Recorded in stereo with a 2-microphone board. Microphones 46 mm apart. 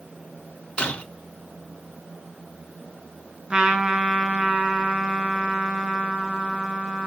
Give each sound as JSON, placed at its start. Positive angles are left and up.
{"t": 0.8, "sound": "breaking glass", "side_deg": 20, "distance_m": 4.5}
{"t": 3.5, "sound": "a trumpet", "side_deg": -20, "distance_m": 4.5}